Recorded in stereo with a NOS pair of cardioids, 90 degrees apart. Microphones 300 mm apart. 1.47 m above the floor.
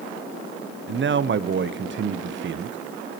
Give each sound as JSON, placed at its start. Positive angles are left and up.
{"t": 0.9, "sound": "a man speaking", "azimuth_deg": -45, "distance_m": 0.8}